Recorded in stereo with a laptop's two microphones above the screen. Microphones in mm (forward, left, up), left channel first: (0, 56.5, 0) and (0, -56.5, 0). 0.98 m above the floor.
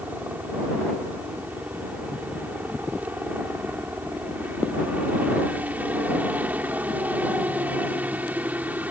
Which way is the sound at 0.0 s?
15° right (ahead or behind).